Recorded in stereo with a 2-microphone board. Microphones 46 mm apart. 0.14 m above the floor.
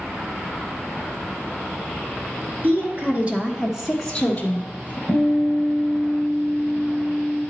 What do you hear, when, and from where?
2.6 s a woman speaking: 45° right (ahead or behind), 1.9 m; by 5.0 s 45° left (ahead or behind), 1.5 m
5.1 s a guitar: 25° left (ahead or behind), 1.7 m